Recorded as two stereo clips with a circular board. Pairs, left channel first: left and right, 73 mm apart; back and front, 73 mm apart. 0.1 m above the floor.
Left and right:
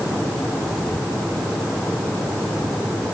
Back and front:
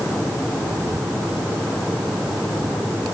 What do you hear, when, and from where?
Only background noise.